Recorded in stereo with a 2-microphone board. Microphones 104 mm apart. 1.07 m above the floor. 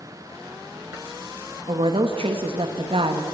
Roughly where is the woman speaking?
Right.